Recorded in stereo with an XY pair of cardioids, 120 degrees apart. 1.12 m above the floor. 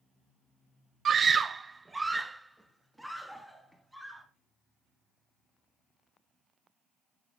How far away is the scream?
About 0.6 m.